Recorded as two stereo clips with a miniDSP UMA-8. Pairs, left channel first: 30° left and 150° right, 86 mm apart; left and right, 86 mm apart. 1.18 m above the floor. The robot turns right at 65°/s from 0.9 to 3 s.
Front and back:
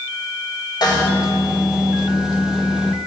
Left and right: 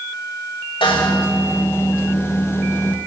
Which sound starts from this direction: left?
A snare drum, at 0.8 s.